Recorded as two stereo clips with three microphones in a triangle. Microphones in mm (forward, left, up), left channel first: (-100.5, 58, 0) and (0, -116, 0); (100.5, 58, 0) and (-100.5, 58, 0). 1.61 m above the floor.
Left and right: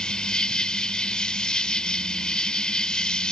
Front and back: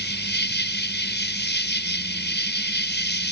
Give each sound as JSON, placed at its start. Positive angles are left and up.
{"t": 0.0, "sound": "an insect", "azimuth_deg": 35}